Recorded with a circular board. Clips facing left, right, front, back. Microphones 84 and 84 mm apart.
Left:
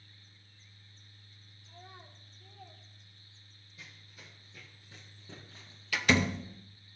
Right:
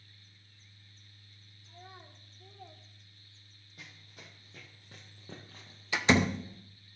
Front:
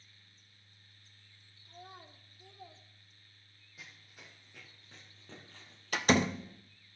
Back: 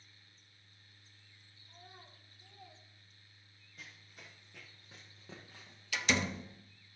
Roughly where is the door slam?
Ahead right.